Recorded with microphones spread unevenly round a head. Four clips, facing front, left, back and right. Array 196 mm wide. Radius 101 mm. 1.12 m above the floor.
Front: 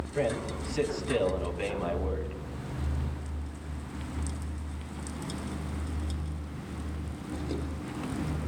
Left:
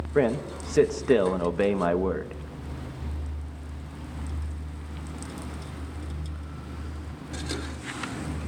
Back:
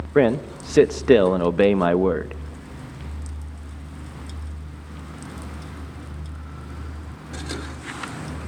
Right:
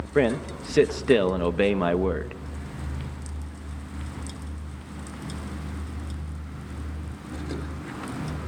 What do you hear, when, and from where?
0.1 s a man speaking: 170° right, 0.9 m